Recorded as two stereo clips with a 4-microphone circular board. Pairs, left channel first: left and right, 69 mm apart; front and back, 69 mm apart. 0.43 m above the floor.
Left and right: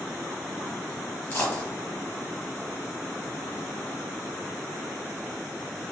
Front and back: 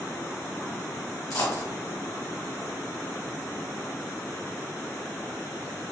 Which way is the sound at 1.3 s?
30° left.